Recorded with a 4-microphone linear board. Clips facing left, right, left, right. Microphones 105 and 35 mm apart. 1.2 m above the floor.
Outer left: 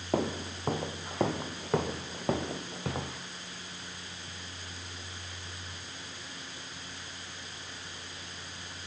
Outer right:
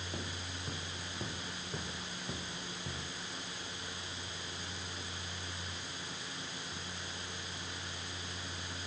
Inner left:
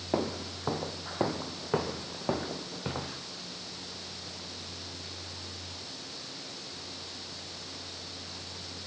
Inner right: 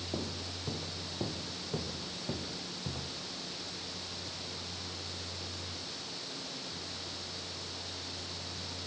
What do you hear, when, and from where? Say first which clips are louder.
0.1 s footsteps: outer left 16 dB, inner left 10 dB; 70° left (ahead or behind)